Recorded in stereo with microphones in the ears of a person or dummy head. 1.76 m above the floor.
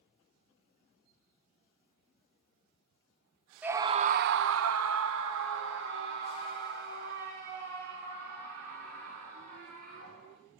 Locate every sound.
3.6 s a scream: 10° right (ahead or behind), 0.8 m; by 10.4 s 55° right (ahead or behind), 6 m